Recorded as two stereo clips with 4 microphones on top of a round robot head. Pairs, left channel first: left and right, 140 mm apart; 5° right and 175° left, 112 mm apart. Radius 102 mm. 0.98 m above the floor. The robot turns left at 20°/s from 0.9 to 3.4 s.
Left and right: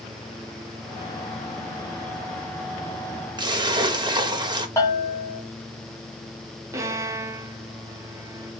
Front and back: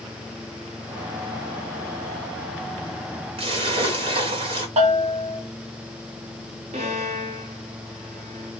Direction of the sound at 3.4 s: 145° right.